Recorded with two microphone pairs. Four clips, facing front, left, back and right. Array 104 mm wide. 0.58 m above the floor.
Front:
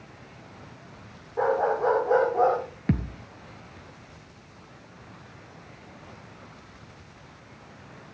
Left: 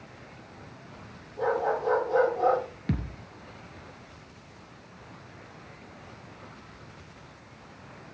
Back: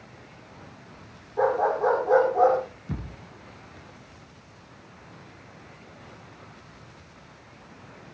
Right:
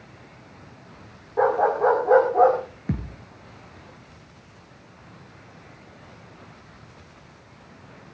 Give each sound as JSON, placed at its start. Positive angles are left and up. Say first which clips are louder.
{"t": 1.4, "sound": "a dog barking", "louder": "right 7 dB, back 1 dB", "azimuth_deg": -80, "distance_m": 7.5}
{"t": 2.9, "sound": "a thud", "louder": "right 2 dB, front 9 dB", "azimuth_deg": -10, "distance_m": 2.5}